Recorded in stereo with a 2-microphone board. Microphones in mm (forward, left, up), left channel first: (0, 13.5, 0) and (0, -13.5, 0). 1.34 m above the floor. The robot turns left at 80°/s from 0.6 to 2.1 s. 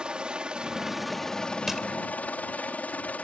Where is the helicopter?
145° right; by 3.2 s 95° left.